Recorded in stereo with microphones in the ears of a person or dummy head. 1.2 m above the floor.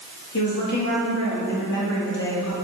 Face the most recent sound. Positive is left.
turn(degrees=60)  # may be behind; listen again after turning